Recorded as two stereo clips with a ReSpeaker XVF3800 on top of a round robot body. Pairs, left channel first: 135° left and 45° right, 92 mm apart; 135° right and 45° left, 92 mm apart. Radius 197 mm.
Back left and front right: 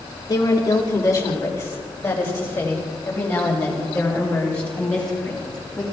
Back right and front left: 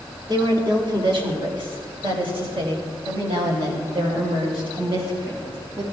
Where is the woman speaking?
85° left, 2.5 m; by 5.8 s 55° left, 6 m.